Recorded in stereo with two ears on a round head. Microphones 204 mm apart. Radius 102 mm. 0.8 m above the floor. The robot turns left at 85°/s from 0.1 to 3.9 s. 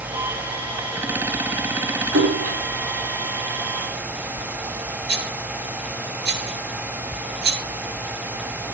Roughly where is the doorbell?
No doorbell in this recording.